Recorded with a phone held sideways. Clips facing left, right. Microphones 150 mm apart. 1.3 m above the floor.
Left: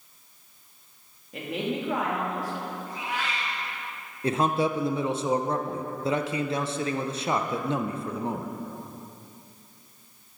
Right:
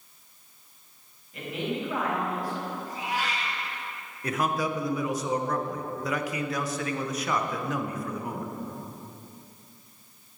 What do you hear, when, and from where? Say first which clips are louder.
1.3 s a woman speaking: left 2 dB; 80° left, 2.5 m
2.9 s a cat meowing: right 1 dB; 40° right (ahead or behind), 2.5 m
4.2 s a man speaking: left 4 dB; 25° left (ahead or behind), 0.5 m